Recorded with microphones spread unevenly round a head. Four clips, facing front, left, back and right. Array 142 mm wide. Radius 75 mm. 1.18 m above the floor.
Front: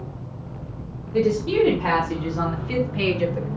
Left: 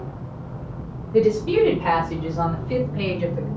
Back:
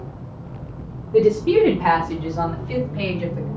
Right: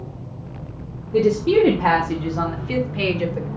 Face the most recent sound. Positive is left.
turn(degrees=-50)